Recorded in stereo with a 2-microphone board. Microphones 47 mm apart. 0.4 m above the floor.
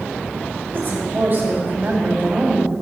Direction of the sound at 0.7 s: 55° right (ahead or behind).